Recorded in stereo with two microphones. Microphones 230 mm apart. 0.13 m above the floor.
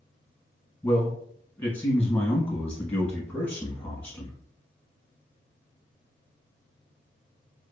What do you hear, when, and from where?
0.8 s a man speaking: 5° left (ahead or behind), 1.1 m